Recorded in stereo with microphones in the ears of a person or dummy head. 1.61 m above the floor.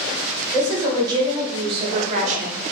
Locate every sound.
0.5 s a woman speaking: 15° right (ahead or behind), 2 m; by 2.6 s 55° right (ahead or behind), 1.0 m